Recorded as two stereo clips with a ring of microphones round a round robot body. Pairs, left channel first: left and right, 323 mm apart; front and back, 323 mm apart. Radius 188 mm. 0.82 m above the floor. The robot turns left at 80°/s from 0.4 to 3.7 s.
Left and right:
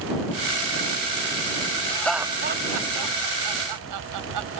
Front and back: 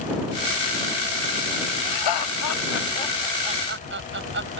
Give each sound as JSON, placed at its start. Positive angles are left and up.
{"t": 1.9, "sound": "laughter", "azimuth_deg": 20}